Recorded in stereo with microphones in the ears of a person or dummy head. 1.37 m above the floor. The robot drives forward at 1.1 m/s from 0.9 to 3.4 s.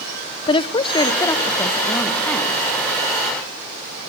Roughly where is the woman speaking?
Left.